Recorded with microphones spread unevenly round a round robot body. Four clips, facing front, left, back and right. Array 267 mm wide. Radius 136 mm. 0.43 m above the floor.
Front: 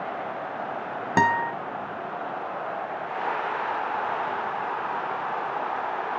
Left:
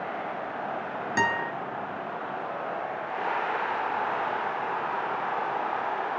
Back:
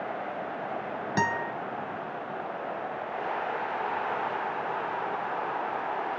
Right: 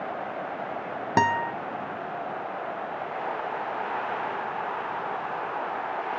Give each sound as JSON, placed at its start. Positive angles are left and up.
{"t": 1.2, "sound": "a guitar", "azimuth_deg": -60, "distance_m": 1.3}